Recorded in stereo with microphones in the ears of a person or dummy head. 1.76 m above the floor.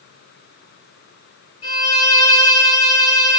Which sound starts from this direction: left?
A violin, at 1.6 s.